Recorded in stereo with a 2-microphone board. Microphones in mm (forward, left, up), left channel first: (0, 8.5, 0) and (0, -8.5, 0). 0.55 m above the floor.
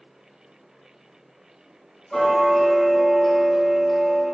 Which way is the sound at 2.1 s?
20° left (ahead or behind).